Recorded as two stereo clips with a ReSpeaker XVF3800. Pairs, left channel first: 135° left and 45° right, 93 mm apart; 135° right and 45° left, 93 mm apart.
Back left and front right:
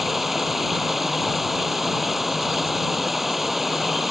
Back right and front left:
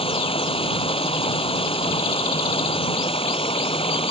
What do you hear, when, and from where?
0.0 s running water: 135° right